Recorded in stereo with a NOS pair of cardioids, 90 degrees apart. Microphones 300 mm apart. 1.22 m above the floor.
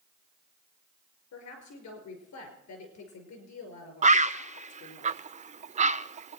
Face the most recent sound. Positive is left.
turn(degrees=-25)